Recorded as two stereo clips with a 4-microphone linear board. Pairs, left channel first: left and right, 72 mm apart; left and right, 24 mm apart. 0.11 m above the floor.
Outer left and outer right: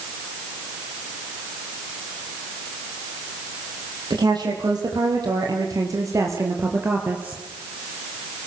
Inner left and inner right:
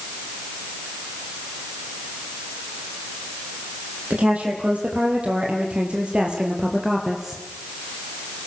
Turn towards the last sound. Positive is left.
turn(degrees=-15)  # may be behind; listen again after turning